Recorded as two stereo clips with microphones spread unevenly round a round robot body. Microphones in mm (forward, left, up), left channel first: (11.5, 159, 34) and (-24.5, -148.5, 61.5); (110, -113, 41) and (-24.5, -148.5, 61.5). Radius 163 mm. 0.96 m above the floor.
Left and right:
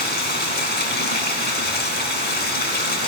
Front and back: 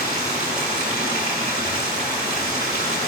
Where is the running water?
145° left, 1.4 m.